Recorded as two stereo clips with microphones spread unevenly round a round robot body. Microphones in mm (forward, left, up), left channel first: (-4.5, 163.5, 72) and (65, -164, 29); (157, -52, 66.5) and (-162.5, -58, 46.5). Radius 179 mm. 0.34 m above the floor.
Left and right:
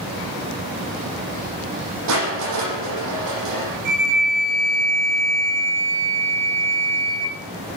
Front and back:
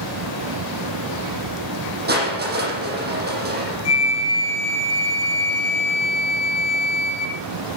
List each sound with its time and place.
2.1 s crushing: 120° right, 8 m
3.9 s a flute: 40° right, 4 m